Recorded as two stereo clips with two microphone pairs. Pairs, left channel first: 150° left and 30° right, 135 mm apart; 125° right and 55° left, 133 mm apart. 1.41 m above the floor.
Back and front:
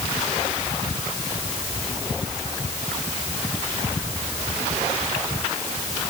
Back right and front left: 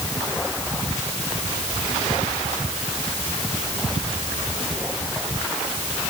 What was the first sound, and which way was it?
Only background noise.